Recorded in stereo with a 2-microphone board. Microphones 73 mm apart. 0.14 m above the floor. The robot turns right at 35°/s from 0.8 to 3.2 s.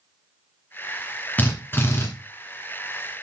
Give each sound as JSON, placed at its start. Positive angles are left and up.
{"t": 1.4, "sound": "a drill", "side_deg": 25, "distance_m": 2.0}